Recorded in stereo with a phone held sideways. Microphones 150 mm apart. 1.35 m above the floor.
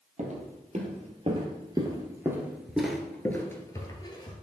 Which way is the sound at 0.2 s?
50° right (ahead or behind).